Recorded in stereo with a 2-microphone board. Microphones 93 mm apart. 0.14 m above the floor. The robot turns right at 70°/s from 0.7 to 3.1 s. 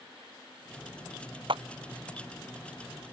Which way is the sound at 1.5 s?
65° right (ahead or behind).